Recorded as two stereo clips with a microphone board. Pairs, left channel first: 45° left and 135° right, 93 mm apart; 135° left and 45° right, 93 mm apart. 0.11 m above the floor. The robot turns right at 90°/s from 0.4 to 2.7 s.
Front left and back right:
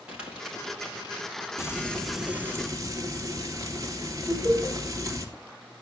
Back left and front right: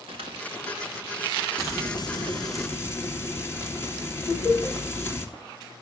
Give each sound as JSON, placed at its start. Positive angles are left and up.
{"t": 0.1, "sound": "crumpling", "azimuth_deg": -55, "distance_m": 5.5}
{"t": 1.6, "sound": "frying", "azimuth_deg": 85, "distance_m": 2.0}
{"t": 4.3, "sound": "laughter", "azimuth_deg": 180, "distance_m": 8.5}